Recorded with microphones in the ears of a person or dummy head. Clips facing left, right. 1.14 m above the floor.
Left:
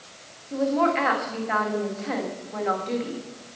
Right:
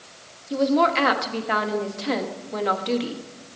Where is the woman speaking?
45° right (ahead or behind), 1.3 m.